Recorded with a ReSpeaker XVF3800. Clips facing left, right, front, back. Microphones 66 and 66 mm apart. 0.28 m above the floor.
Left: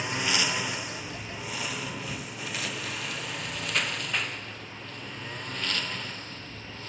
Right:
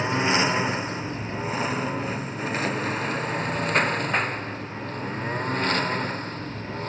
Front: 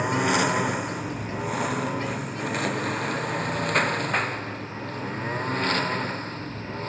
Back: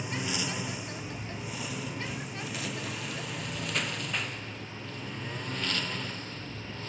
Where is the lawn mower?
30° right; by 6.9 s 45° right.